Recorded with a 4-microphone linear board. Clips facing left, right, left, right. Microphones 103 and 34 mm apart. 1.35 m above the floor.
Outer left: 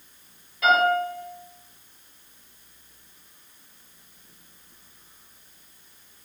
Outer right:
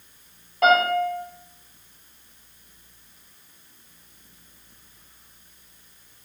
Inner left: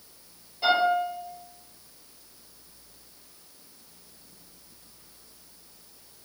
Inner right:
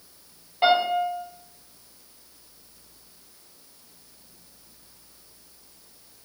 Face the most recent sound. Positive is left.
turn(degrees=-60)  # may be behind; listen again after turning